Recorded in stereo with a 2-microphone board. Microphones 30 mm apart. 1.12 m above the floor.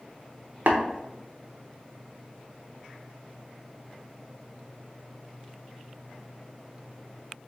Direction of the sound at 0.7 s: 70° right (ahead or behind).